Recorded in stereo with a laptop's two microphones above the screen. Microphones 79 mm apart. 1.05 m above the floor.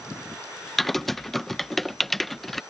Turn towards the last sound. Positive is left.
turn(degrees=5)  # may be behind; listen again after turning